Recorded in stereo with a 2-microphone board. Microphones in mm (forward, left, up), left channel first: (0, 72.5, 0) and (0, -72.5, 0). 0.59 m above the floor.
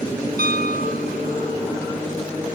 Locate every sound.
0.4 s a piano: 65° left (ahead or behind)